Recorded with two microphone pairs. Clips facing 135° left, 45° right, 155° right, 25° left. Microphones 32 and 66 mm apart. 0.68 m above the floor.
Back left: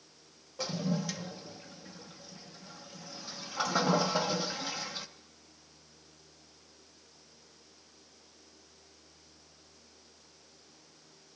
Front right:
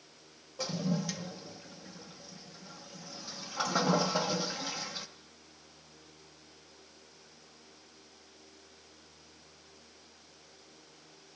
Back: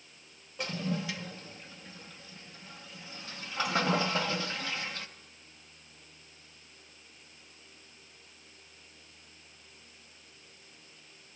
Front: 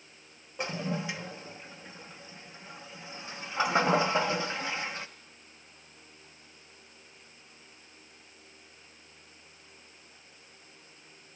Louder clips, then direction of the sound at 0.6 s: Even, front 1 dB; 60° left.